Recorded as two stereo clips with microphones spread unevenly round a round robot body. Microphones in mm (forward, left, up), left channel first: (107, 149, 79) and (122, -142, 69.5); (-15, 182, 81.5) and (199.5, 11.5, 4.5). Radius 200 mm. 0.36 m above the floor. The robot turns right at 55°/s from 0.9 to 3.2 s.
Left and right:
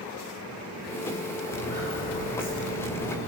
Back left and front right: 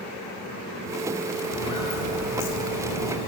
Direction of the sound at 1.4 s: 135° left.